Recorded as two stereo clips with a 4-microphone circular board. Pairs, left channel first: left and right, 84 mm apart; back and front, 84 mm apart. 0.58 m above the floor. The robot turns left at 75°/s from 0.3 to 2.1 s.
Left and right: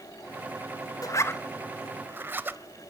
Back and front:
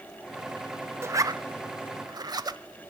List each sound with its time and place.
1.0 s a zipper: 55° left, 0.5 m; by 2.6 s 25° right, 0.5 m